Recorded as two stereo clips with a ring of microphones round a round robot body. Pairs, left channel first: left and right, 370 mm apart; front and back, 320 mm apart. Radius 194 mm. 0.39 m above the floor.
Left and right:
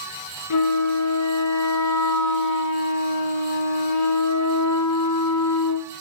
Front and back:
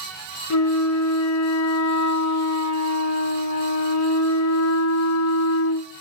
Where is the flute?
40° left, 1.1 m.